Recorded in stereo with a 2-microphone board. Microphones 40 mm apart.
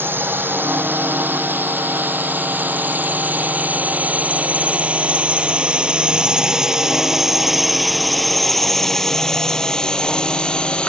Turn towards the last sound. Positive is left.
turn(degrees=25)  # may be behind; listen again after turning